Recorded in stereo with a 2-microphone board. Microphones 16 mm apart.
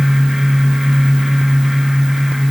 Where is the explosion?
No explosion in this recording.